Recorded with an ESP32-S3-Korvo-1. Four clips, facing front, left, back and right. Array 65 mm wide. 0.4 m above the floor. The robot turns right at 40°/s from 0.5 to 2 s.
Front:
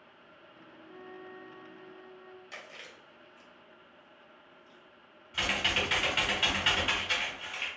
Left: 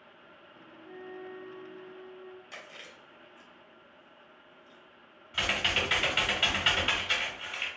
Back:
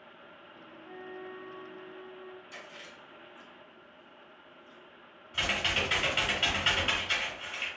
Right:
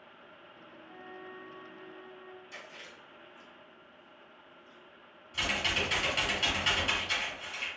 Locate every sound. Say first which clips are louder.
0.8 s a flute: left 4 dB, back 4 dB; 175° left, 0.6 m; by 2.4 s 140° right, 0.6 m
2.5 s chewing: left 1 dB, even; 35° left, 1.3 m
5.3 s typing on a keyboard: left 2 dB, even; 85° left, 1.0 m